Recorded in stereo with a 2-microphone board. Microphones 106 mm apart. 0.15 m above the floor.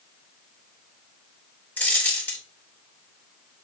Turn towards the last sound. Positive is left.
turn(degrees=15)  # may be behind; listen again after turning